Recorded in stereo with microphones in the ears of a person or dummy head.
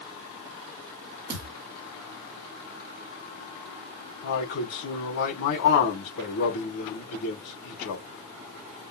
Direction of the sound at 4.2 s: 70° left (ahead or behind).